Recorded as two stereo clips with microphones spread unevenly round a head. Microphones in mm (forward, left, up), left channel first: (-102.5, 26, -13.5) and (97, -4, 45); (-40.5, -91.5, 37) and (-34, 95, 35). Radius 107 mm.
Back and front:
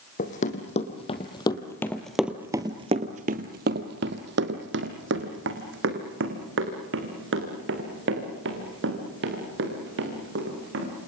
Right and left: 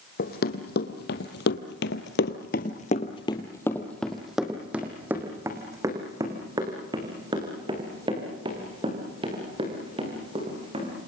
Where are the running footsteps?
130° right, 2.5 m; by 10.9 s 20° left, 8 m.